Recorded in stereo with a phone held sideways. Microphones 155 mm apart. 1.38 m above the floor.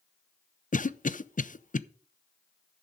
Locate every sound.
0.7 s a cough: 60° left (ahead or behind), 0.6 m